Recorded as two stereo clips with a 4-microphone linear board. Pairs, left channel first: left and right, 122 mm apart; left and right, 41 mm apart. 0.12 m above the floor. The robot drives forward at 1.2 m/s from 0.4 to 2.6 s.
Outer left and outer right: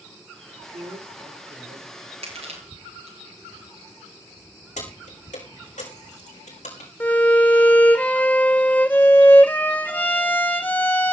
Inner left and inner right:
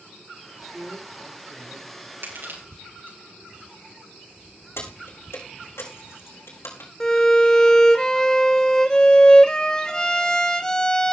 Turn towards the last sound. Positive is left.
turn(degrees=15)  # may be behind; listen again after turning